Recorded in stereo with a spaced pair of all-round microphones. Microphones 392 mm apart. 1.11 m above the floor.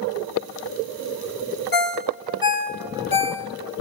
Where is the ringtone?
60° left (ahead or behind), 0.8 m.